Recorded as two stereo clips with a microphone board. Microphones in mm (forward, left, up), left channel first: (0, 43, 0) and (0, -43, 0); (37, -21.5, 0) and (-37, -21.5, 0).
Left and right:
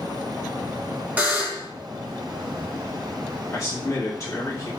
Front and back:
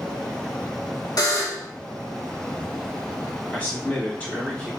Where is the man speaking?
60° left, 1.4 m.